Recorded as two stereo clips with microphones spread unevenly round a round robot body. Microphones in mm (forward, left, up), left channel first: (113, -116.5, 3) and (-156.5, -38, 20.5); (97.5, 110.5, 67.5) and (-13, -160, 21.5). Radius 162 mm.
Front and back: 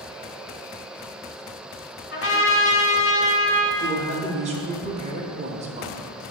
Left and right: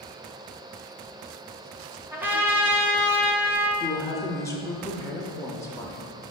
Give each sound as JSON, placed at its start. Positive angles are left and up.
{"t": 2.1, "sound": "a trumpet", "azimuth_deg": -40, "distance_m": 1.4}
{"t": 3.8, "sound": "a woman speaking", "azimuth_deg": 155, "distance_m": 0.9}